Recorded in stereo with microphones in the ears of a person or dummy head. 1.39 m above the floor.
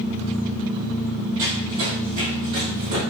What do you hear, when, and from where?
1.4 s running footsteps: 50° right (ahead or behind), 2.0 m; by 3.0 s 65° right (ahead or behind), 3 m